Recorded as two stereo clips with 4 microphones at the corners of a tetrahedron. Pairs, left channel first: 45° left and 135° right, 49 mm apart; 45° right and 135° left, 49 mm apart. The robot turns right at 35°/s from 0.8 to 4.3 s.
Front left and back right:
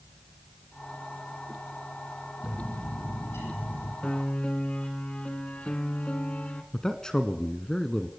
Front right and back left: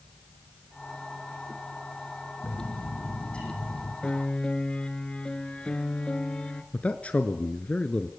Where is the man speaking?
20° right, 1.2 m.